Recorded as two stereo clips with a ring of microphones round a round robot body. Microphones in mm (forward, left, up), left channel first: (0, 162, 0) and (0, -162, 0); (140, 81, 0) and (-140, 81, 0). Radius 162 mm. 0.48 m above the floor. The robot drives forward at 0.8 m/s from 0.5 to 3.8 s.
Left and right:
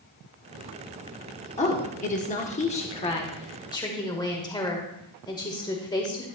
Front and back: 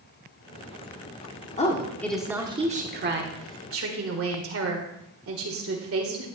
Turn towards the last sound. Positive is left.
turn(degrees=165)